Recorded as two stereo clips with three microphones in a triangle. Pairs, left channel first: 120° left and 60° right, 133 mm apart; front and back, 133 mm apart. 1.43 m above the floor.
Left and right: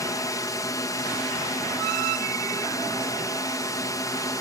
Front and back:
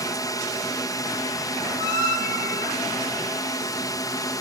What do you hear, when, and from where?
0.0 s a drone: 60° left